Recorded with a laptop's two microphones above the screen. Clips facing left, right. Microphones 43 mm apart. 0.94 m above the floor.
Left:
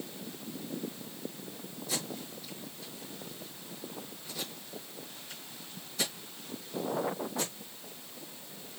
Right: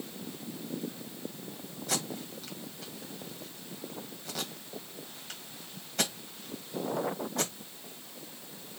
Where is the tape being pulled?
70° right (ahead or behind), 1.9 m.